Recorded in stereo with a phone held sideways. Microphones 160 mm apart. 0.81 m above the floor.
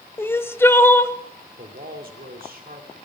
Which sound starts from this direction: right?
A man speaking, at 1.6 s.